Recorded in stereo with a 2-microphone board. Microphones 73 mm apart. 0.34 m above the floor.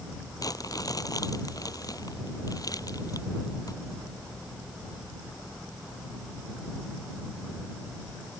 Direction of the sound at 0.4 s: 55° left (ahead or behind).